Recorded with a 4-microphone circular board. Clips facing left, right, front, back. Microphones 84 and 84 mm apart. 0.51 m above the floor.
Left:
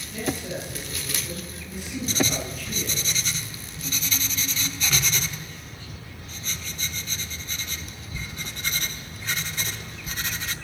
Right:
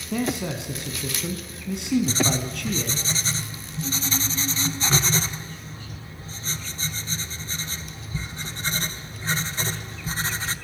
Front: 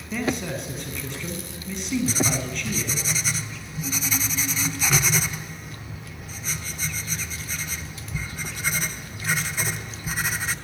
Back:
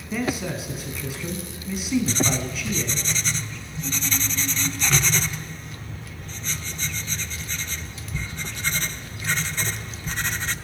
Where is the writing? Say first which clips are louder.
Right 2 dB, back 1 dB; 75° right, 0.9 m.